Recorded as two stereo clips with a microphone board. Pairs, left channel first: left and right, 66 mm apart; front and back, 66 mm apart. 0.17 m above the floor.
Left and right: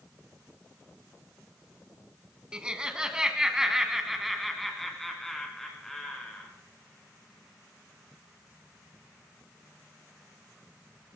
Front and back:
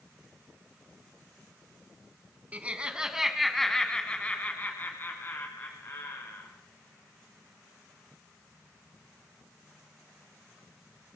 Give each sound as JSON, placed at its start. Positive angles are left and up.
{"t": 2.5, "sound": "laughter", "azimuth_deg": -150, "distance_m": 1.7}